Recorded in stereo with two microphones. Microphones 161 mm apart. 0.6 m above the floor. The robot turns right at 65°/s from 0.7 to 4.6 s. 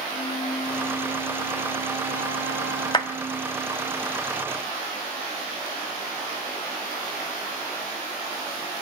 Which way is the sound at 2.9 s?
30° left (ahead or behind).